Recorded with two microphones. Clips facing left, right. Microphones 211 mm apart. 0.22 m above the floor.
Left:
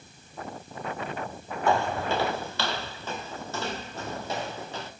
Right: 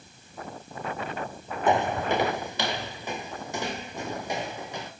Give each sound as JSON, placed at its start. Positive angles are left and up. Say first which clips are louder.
{"t": 1.7, "sound": "footsteps", "louder": "right 2 dB", "side_deg": -20, "distance_m": 0.9}